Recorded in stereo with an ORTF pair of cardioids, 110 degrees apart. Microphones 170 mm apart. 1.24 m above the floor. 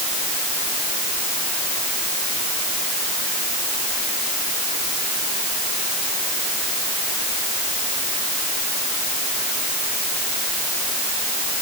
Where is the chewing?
I don't hear chewing.